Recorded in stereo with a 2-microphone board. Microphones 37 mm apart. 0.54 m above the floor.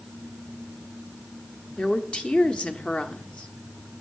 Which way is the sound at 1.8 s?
30° left (ahead or behind).